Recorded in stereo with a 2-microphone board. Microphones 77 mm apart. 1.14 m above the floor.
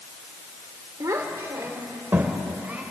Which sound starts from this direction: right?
A child speaking, at 1.0 s.